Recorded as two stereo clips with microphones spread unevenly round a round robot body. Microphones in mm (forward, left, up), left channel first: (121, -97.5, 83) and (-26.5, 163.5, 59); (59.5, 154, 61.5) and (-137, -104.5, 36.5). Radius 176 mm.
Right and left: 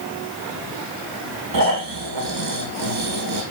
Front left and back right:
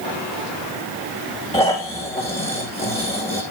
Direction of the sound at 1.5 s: 125° left.